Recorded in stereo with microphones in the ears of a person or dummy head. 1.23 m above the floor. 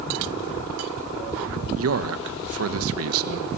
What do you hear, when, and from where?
1.8 s a man speaking: 70° right (ahead or behind), 1.5 m